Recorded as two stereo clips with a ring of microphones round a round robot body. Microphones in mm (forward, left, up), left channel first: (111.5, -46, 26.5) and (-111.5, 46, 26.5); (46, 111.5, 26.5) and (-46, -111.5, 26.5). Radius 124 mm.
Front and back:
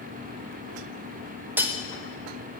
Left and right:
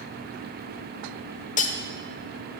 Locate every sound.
1.6 s cutlery clinking: 85° left, 0.8 m